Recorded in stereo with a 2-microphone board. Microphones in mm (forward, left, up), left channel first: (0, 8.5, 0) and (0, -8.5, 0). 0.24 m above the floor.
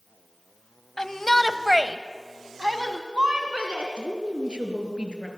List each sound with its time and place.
1.0 s a shout: 30° left (ahead or behind), 1.3 m; by 3.9 s 60° right (ahead or behind), 3 m
4.0 s a woman speaking: 65° right (ahead or behind), 4 m